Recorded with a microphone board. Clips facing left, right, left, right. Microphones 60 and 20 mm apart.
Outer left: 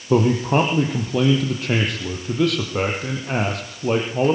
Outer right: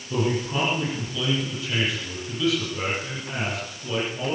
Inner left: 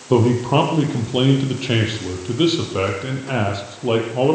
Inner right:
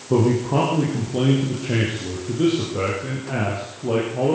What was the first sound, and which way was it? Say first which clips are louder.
A man speaking: outer left 8 dB, inner left 3 dB; 60° left (ahead or behind).